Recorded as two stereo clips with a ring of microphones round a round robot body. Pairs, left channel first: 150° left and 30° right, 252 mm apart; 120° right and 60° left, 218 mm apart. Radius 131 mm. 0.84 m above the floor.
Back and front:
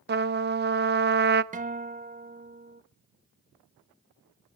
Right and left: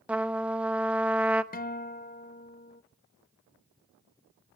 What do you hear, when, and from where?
0.1 s a trumpet: 20° right, 0.9 m
1.5 s a guitar: 80° right, 1.0 m